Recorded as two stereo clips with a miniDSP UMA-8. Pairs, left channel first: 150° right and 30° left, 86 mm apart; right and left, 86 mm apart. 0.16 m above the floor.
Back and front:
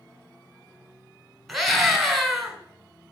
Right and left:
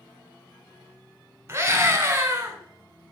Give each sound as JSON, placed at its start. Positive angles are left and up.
{"t": 1.5, "sound": "a scream", "azimuth_deg": 120, "distance_m": 1.4}